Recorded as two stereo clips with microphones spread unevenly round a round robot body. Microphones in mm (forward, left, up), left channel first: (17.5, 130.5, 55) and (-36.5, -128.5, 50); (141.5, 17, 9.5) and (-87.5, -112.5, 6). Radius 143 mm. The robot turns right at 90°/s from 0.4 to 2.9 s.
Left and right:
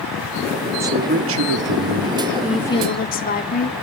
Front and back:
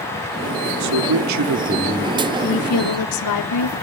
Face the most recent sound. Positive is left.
turn(degrees=20)